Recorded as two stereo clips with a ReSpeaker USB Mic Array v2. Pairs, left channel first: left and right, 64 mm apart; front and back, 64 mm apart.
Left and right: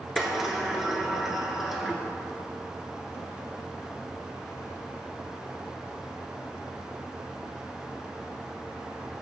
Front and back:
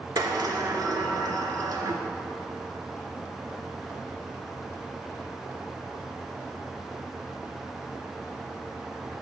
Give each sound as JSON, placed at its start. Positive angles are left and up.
{"t": 0.2, "sound": "a sliding door", "azimuth_deg": -175, "distance_m": 0.6}